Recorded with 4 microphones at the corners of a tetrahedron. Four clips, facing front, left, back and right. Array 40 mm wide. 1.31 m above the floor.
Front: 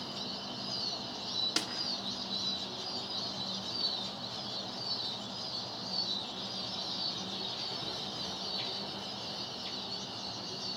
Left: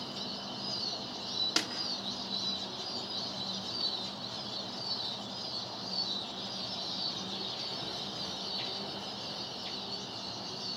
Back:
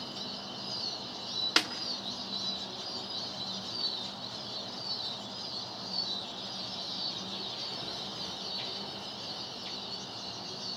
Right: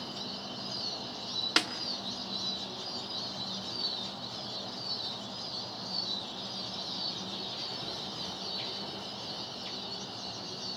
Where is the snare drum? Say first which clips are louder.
Right 6 dB, back 12 dB; 145° right, 1.5 m.